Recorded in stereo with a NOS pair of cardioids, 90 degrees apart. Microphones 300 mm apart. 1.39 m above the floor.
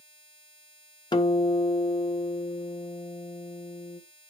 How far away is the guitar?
About 1.4 m.